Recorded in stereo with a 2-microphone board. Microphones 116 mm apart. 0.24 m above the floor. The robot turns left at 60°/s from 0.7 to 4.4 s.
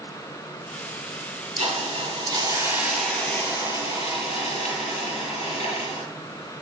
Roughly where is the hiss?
Right.